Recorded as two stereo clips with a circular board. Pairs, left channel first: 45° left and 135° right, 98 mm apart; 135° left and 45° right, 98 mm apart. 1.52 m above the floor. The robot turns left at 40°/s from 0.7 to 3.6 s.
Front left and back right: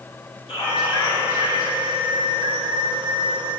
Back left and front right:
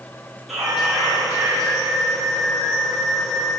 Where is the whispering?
45° left, 4 m; by 1.7 s straight ahead, 4 m.